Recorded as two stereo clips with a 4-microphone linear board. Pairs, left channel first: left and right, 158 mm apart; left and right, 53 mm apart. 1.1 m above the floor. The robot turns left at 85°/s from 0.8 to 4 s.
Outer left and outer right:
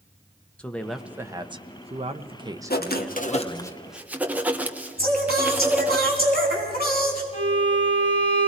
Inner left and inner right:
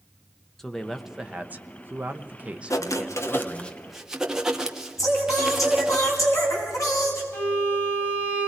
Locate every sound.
0.6 s a man speaking: 10° left, 0.9 m; by 3.7 s 125° left, 0.9 m
2.7 s writing: 100° left, 1.2 m; by 6.0 s 10° right, 1.2 m
5.0 s singing: 80° left, 4.5 m
7.3 s a violin: 40° left (ahead or behind), 4 m